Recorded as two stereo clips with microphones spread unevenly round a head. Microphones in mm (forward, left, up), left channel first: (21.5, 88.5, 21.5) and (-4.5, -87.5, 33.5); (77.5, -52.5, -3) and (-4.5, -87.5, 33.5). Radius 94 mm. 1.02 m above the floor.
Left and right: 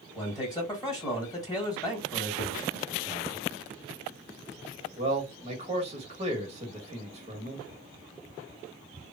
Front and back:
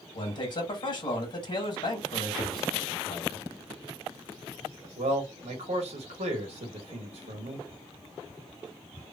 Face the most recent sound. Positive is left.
turn(degrees=-155)